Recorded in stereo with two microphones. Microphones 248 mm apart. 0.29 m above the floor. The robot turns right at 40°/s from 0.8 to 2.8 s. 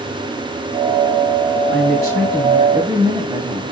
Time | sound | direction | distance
1.7 | a woman speaking | 60° right | 2 m